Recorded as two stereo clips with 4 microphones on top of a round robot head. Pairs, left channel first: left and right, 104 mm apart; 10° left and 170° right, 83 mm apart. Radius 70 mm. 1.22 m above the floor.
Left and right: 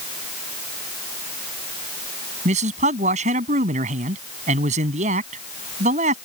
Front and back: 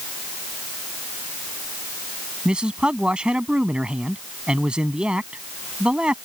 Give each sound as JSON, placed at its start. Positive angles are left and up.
{"t": 2.5, "sound": "a man speaking", "azimuth_deg": -85}